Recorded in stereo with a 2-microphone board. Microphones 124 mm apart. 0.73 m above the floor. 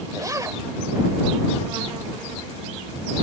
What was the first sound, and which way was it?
A zipper, 30° right (ahead or behind).